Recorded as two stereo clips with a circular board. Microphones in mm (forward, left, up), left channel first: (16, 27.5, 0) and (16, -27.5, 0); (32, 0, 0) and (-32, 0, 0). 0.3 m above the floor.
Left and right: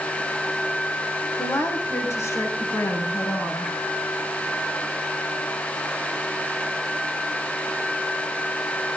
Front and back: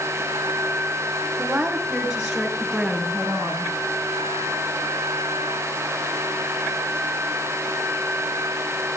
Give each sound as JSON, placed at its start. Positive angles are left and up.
{"t": 1.4, "sound": "a woman speaking", "azimuth_deg": 100, "distance_m": 4.5}